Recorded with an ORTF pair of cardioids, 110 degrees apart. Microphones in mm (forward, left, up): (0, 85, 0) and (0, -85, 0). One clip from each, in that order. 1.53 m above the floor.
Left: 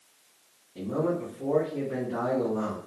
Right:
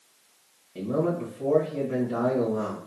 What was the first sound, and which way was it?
A man speaking, 35° right.